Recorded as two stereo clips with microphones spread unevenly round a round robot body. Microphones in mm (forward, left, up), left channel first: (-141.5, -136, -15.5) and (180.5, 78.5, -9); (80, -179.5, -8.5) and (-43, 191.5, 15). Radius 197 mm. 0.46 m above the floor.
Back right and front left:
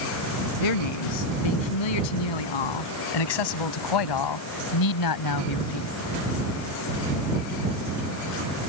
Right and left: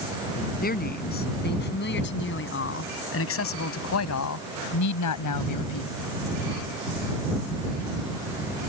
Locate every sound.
0.6 s a man speaking: 140° right; by 6.0 s 105° right